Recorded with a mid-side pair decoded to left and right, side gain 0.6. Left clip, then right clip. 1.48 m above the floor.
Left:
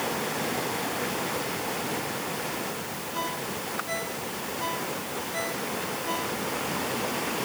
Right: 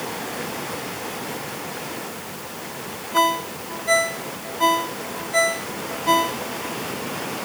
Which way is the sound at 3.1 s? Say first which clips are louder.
Right 13 dB; 60° right.